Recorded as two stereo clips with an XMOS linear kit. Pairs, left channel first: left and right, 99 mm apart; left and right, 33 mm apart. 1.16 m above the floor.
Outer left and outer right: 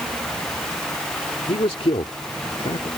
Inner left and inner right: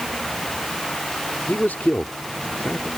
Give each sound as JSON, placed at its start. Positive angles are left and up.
{"t": 1.5, "sound": "a man speaking", "side_deg": 90}